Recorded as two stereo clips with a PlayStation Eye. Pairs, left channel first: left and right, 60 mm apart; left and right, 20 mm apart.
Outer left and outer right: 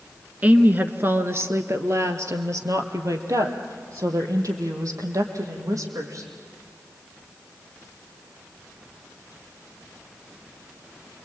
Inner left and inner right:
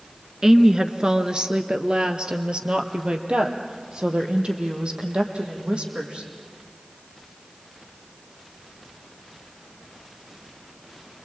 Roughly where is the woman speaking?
Right.